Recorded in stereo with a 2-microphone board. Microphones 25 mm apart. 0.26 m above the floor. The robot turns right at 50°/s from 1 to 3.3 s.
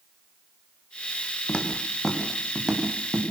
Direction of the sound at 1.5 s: 40° left (ahead or behind).